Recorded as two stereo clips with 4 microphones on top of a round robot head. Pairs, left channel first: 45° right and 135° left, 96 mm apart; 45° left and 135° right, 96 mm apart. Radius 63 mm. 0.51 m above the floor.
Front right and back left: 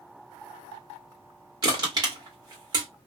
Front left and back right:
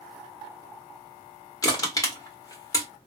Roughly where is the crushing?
Left.